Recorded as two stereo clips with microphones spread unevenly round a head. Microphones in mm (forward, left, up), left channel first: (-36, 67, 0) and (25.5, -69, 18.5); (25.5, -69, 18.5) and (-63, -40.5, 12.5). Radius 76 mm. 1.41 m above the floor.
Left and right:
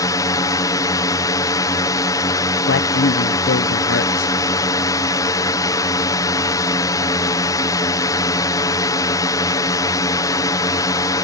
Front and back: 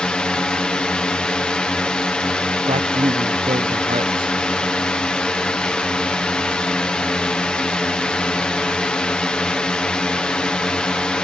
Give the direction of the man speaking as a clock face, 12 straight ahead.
8 o'clock.